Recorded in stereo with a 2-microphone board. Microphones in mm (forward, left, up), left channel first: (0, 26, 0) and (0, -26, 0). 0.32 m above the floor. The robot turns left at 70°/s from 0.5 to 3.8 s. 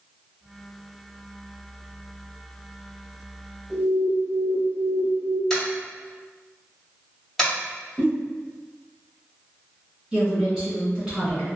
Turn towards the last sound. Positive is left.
turn(degrees=-20)  # may be behind; listen again after turning